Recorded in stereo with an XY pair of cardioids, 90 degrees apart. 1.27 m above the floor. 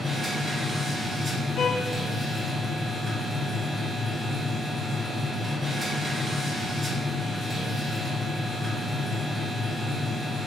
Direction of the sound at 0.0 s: 30° right.